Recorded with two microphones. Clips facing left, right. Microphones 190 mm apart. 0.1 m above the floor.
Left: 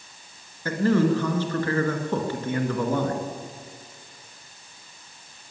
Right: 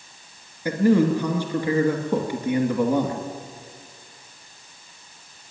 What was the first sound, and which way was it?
A man speaking, 15° right (ahead or behind).